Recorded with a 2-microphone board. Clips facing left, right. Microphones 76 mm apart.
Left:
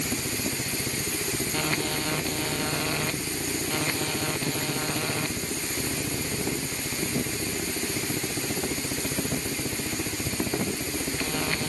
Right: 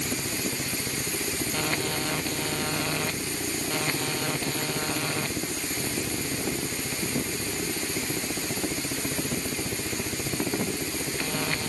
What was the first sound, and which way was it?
Only background noise.